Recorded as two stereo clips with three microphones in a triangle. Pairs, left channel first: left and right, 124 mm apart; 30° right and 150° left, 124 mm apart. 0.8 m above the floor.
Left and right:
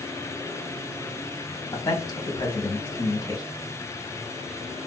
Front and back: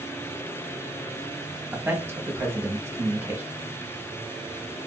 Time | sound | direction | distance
1.7 | a man speaking | 100° left | 0.9 m